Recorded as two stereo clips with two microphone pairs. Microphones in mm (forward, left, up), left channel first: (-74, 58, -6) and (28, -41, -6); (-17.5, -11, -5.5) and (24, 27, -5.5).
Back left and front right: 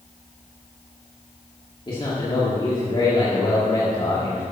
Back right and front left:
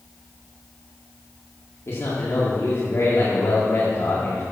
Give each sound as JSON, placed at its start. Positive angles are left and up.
{"t": 1.9, "sound": "a man speaking", "azimuth_deg": -170, "distance_m": 2.0}